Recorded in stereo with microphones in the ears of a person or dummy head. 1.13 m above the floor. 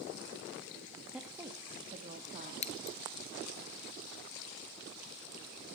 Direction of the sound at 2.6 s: 35° left (ahead or behind).